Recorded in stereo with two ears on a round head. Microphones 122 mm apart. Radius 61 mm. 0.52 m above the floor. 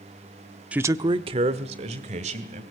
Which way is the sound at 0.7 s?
10° right (ahead or behind).